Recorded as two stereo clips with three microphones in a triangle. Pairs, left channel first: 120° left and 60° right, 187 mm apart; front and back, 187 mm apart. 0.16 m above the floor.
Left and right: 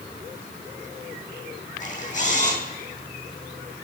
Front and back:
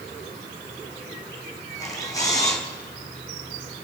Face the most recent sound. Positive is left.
turn(degrees=70)